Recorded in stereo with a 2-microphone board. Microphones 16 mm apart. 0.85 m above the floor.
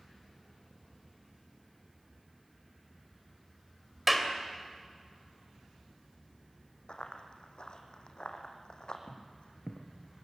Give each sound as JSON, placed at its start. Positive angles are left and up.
{"t": 4.1, "sound": "a clap", "side_deg": -10, "distance_m": 2.5}
{"t": 6.9, "sound": "running footsteps", "side_deg": 70, "distance_m": 3.0}
{"t": 9.1, "sound": "footsteps", "side_deg": 70, "distance_m": 3.0}